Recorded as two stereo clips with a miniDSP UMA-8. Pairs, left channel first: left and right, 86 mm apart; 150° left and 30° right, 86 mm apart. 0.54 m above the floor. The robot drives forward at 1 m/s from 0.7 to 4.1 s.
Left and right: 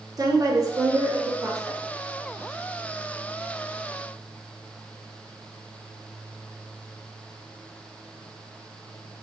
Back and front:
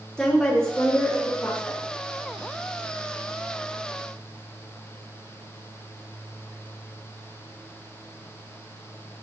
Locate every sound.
0.2 s a woman speaking: 130° right, 1.6 m; by 1.8 s 155° right, 2.5 m